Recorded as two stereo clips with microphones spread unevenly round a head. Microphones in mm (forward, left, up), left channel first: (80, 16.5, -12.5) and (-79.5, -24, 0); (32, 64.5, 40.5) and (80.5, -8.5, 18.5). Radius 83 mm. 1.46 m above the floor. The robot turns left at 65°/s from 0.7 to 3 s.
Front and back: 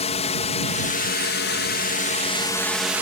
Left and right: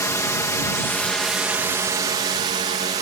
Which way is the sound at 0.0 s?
65° left.